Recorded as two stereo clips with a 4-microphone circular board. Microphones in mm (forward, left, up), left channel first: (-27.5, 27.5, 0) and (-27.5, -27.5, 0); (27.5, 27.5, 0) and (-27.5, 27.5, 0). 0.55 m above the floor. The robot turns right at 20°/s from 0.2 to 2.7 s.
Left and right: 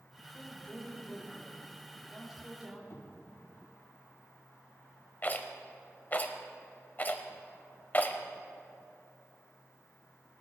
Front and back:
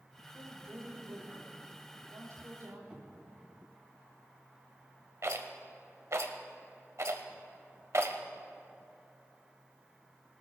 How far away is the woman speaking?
About 4 m.